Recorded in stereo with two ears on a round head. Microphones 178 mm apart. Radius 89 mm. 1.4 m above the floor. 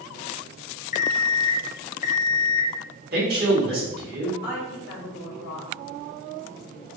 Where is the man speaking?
50° right (ahead or behind), 1.9 m.